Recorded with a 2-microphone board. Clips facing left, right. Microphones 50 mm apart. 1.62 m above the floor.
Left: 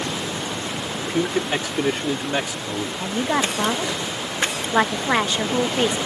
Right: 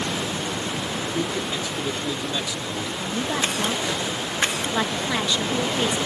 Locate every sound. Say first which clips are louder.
1.0 s a man speaking: left 6 dB; 70° left (ahead or behind); by 2.9 s 40° left (ahead or behind)
3.0 s a woman speaking: left 4 dB; 40° left (ahead or behind)